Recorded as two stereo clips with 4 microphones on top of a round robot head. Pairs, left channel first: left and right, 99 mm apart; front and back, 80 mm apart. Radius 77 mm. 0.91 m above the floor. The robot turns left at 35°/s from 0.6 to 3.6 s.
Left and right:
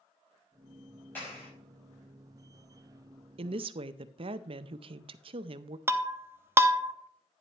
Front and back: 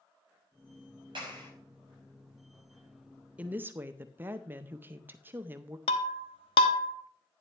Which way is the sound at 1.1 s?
165° left.